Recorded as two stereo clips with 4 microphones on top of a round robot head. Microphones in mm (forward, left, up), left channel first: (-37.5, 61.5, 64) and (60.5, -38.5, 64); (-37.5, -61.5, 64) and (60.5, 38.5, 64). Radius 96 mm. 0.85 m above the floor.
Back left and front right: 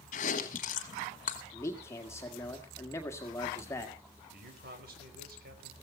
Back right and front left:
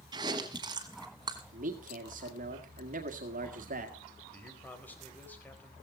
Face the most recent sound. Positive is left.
turn(degrees=-55)